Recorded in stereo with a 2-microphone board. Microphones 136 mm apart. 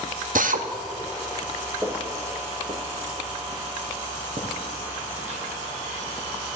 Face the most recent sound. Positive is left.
turn(degrees=-60)  # may be behind; listen again after turning